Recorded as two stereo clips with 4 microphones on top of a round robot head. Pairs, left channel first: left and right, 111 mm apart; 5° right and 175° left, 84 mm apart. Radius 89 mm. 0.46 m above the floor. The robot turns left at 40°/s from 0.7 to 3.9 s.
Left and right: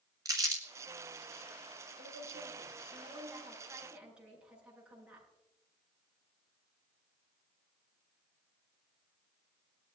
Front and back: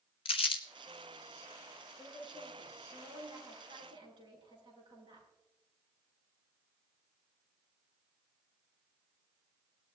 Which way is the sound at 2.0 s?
95° right.